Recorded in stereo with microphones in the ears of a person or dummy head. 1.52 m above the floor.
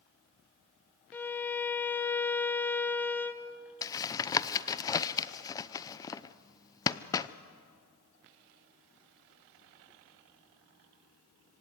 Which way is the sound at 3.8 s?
15° left (ahead or behind).